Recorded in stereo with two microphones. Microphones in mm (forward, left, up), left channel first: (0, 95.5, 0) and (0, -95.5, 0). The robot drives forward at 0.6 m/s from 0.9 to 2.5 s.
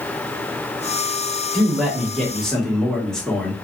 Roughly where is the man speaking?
Centre.